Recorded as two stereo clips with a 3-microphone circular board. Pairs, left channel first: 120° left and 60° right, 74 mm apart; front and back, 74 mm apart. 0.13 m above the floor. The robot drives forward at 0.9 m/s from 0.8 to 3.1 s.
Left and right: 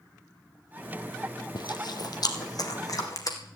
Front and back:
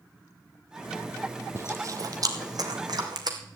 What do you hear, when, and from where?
1.6 s chewing: 130° left, 1.3 m; by 3.4 s 155° left, 2.5 m